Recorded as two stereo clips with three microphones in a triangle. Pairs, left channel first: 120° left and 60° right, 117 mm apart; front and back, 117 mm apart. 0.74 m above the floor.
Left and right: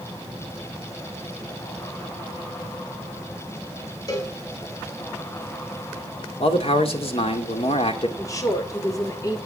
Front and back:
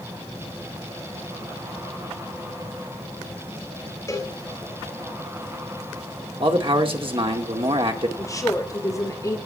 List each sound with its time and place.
4.1 s a cowbell: 65° left, 3.5 m
6.4 s a man speaking: 145° left, 2.5 m
8.2 s a woman speaking: 60° left, 2.5 m